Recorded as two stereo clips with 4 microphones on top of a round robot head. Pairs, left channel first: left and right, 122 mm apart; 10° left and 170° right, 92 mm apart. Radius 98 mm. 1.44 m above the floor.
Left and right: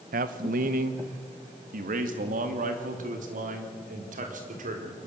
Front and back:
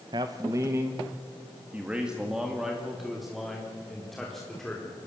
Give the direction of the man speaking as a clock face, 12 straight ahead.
4 o'clock.